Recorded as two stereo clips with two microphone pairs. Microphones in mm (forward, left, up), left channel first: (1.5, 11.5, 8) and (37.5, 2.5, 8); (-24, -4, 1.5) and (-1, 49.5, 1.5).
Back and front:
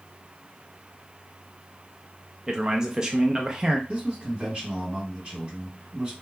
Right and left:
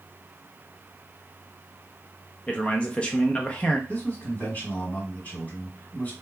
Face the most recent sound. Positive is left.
turn(degrees=-65)